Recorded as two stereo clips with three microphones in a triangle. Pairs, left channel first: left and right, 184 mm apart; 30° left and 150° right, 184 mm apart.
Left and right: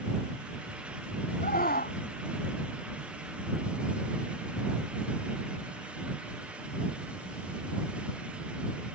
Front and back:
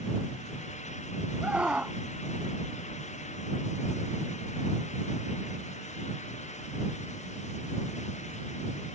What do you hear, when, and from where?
1.4 s a scream: 125° left